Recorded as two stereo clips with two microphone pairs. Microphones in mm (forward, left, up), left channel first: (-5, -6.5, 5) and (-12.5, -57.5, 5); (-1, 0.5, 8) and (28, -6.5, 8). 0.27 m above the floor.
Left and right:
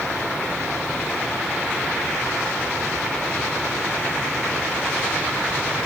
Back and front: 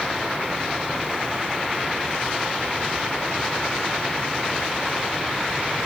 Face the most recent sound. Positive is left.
No sound to turn to.